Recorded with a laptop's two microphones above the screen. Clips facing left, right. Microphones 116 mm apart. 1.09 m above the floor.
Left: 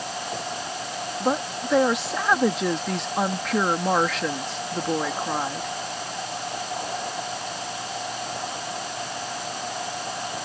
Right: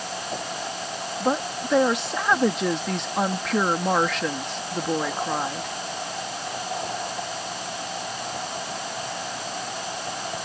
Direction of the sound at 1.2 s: Centre (ahead or behind).